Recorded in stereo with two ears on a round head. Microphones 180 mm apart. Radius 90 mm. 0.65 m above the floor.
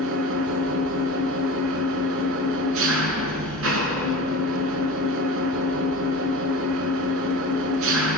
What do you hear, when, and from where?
0.0 s an engine running: 75° right (ahead or behind), 4.5 m